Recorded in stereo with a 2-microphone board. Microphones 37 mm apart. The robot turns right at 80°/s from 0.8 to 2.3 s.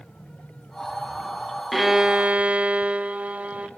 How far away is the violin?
About 1.1 m.